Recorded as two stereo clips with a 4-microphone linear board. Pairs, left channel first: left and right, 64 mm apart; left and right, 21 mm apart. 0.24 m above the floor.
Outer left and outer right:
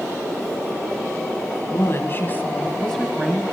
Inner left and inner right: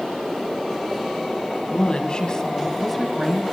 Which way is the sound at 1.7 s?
50° left (ahead or behind).